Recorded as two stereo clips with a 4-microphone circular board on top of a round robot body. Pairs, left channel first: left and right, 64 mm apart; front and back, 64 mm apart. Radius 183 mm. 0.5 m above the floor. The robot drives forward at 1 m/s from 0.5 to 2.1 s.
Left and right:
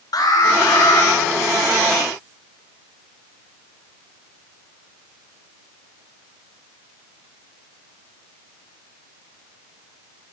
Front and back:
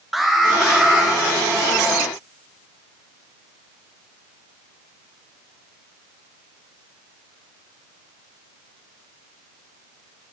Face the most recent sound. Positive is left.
turn(degrees=110)